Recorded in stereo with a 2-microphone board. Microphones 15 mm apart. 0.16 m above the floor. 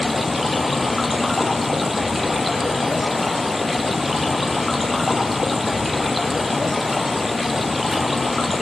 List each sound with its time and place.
0.0 s running water: 10° right (ahead or behind), 1.5 m